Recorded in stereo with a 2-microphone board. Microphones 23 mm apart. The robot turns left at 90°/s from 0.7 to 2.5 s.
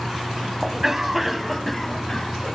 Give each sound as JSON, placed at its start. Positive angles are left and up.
{"t": 0.6, "sound": "a cough", "side_deg": -20, "distance_m": 1.4}